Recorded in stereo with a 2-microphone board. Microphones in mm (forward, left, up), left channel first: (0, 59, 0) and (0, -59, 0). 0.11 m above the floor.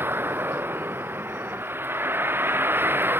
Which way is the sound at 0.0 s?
20° right (ahead or behind).